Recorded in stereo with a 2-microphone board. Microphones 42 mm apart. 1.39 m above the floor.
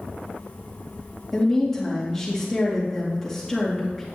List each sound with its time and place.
1.3 s a woman speaking: 10° left (ahead or behind), 2.5 m